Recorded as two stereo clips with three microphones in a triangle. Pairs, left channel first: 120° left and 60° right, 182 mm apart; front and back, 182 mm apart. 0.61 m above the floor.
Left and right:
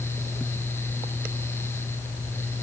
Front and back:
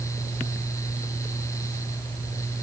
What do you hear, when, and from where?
Only background noise.